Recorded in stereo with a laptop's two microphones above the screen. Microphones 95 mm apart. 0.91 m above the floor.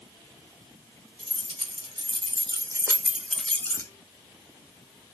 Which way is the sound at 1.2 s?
80° right.